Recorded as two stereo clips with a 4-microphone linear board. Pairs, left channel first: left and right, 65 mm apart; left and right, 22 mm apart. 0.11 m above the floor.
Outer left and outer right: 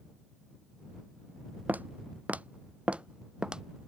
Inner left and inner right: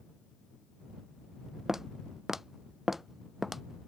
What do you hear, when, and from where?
1.7 s footsteps: 25° right (ahead or behind); by 3.6 s 10° right (ahead or behind)